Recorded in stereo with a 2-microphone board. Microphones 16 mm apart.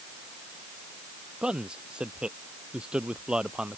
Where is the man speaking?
75° right (ahead or behind); by 3.8 s 70° right (ahead or behind).